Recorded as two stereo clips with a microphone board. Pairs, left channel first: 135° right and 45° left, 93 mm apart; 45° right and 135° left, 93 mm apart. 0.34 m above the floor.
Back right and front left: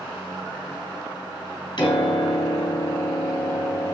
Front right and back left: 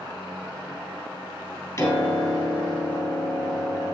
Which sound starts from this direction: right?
A piano, at 1.8 s.